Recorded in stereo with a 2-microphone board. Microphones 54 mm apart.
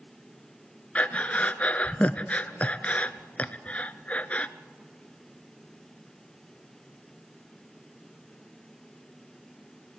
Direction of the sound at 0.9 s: 25° left (ahead or behind).